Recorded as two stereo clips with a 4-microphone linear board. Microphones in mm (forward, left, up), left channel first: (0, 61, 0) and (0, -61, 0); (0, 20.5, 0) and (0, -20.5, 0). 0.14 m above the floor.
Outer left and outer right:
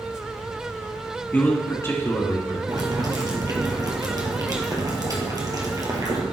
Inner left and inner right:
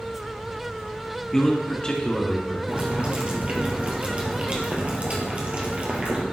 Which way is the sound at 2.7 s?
30° right (ahead or behind).